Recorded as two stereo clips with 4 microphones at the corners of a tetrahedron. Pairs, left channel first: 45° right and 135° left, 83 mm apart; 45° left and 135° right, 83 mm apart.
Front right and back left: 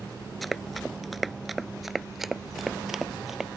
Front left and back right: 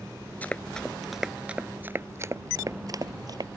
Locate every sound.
0.4 s running footsteps: 45° left; by 3.5 s 140° right